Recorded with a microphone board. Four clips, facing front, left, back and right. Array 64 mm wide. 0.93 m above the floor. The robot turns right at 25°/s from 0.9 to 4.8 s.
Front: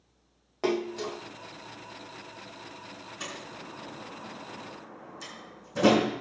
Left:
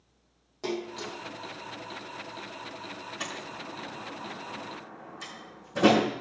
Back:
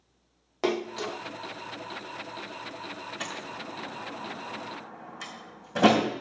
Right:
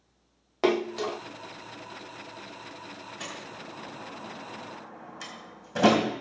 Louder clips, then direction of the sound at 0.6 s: Right 8 dB, even; 110° right.